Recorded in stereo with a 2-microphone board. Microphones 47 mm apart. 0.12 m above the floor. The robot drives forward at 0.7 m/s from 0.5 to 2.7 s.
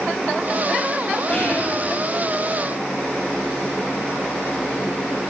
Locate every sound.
1.3 s whispering: 35° left (ahead or behind), 2.5 m; by 1.8 s 30° left (ahead or behind), 3 m